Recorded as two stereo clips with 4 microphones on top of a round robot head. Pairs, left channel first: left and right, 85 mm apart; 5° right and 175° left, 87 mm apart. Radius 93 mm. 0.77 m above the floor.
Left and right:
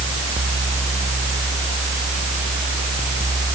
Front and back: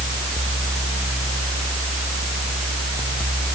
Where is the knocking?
I don't hear knocking.